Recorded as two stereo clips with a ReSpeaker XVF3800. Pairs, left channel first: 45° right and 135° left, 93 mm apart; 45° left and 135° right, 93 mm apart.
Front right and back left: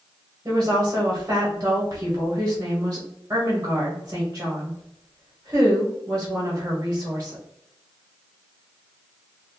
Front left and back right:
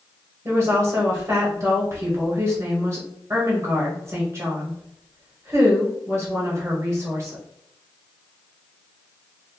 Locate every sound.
0.5 s a woman speaking: 170° right, 1.1 m